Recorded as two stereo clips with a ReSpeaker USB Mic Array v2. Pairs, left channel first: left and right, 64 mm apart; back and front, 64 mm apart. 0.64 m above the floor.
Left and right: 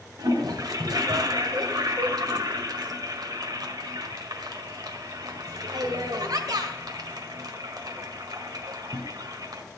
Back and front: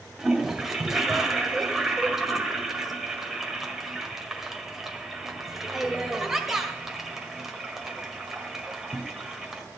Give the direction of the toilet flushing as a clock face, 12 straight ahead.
3 o'clock.